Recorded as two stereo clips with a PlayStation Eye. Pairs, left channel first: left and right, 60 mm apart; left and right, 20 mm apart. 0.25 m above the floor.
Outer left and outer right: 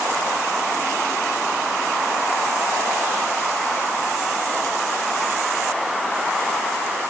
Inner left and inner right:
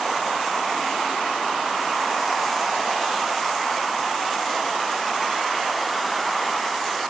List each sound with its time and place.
Only background noise.